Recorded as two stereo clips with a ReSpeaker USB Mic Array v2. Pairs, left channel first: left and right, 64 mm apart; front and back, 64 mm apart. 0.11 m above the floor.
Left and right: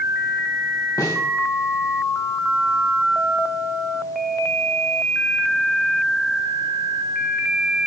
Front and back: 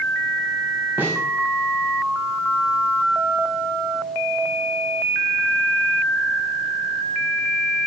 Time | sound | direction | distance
1.0 | a snare drum | 120° left | 8 m